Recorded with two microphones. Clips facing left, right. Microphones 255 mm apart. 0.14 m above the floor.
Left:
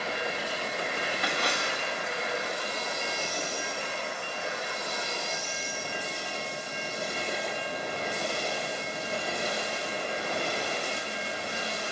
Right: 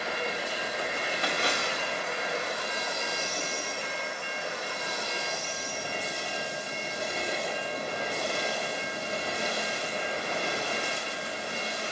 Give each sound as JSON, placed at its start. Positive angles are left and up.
{"t": 1.2, "sound": "a splash", "side_deg": -25, "distance_m": 5.0}